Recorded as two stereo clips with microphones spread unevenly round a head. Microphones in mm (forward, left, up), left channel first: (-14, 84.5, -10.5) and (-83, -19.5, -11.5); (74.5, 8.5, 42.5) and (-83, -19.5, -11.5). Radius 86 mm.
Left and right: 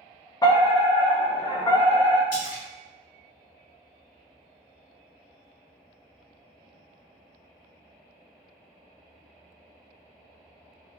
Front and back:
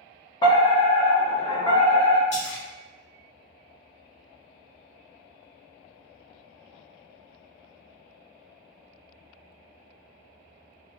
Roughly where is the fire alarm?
Left.